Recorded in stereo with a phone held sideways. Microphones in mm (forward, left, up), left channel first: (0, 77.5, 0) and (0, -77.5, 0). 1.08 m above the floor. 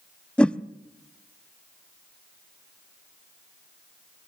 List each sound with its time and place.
0.4 s a whoosh: 5° left (ahead or behind), 0.5 m